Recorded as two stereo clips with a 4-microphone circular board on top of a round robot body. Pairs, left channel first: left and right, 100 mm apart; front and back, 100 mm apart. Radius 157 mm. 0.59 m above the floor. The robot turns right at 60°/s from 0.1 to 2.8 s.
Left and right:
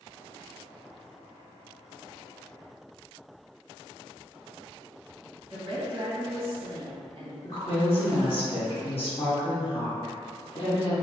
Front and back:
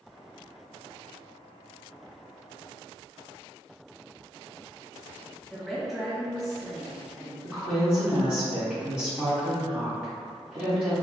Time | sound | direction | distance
5.5 | a woman speaking | 90° right | 1.4 m
7.4 | a woman speaking | 100° left | 1.7 m